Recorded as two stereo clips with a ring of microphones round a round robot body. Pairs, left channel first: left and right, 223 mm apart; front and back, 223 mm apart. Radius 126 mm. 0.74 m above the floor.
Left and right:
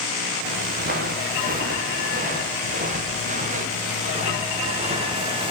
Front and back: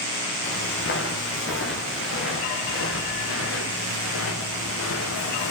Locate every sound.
0.4 s footsteps: 40° right, 6.5 m; by 5.5 s 20° right, 3.5 m